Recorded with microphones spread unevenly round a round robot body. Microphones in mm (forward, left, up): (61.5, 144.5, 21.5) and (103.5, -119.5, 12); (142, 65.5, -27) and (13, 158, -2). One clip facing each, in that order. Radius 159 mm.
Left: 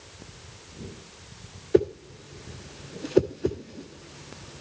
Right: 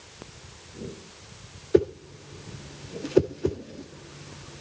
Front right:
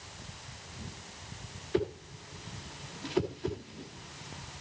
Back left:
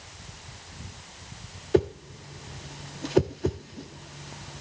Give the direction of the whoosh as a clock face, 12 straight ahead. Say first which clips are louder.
Even, back left 8 dB; 6 o'clock.